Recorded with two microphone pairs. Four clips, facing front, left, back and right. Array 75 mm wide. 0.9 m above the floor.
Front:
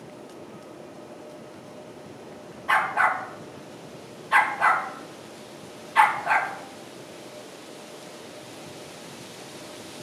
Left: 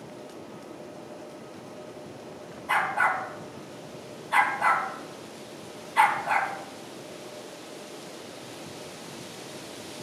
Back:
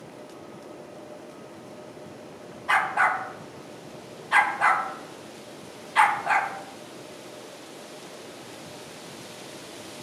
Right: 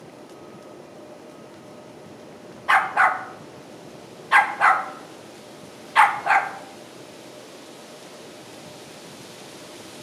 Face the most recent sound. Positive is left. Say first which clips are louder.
# right 6 dB, front 1 dB
turn(degrees=-90)